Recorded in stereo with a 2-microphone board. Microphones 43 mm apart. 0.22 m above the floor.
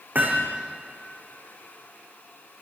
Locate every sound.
0.1 s hammering: 45° right (ahead or behind), 5.5 m